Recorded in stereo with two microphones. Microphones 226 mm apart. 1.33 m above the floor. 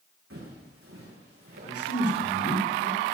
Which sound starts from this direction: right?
Footsteps, at 0.3 s.